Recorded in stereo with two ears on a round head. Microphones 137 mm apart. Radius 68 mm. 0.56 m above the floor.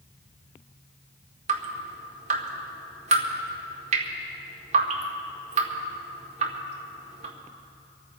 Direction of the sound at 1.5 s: 45° right (ahead or behind).